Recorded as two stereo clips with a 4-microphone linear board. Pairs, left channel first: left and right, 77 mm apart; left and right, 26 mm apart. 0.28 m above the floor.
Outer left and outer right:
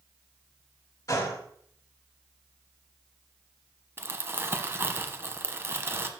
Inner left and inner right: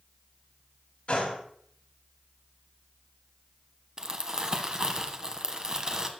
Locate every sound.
1.1 s a gunshot: 50° left (ahead or behind), 2 m
4.0 s crumpling: 30° right (ahead or behind), 0.7 m